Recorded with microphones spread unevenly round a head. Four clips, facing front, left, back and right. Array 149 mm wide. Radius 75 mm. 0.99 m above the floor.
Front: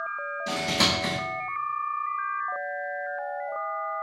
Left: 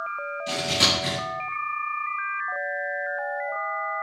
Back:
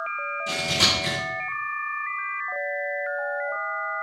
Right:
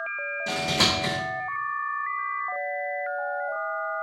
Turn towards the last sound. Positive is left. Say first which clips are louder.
# right 1 dB, front 2 dB
turn(degrees=-70)